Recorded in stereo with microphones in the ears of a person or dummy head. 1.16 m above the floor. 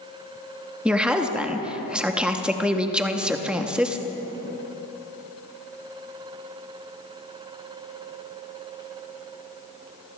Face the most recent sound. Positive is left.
turn(degrees=0)  # may be behind; listen again after turning